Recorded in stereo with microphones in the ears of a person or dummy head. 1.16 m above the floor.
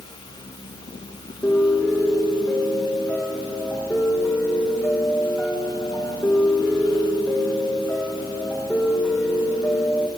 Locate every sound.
1.4 s a piano: 5° left (ahead or behind), 1.0 m